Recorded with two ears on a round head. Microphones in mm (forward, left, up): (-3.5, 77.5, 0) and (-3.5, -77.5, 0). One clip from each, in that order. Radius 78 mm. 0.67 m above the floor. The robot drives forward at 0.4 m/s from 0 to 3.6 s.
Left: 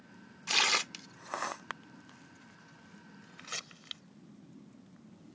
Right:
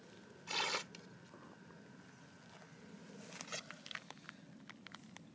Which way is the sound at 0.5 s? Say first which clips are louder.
Left 11 dB; 60° left (ahead or behind).